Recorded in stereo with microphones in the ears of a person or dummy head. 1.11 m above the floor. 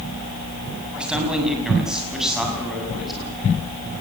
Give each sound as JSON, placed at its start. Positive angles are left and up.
{"t": 1.0, "sound": "a man speaking", "side_deg": 0, "distance_m": 7.5}